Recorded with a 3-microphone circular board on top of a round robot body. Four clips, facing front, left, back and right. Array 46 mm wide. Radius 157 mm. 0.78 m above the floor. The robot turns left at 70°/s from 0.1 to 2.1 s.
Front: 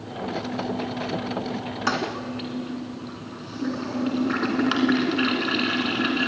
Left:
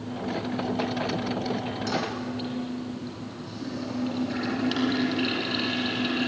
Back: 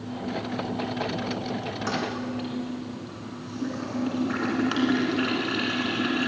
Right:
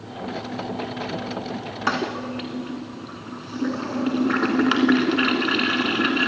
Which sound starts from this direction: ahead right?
A toilet flushing, at 1.9 s.